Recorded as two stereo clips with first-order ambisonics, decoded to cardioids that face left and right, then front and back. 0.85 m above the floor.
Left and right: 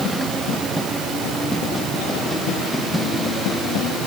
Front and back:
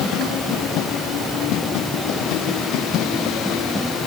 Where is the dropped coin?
I don't hear a dropped coin.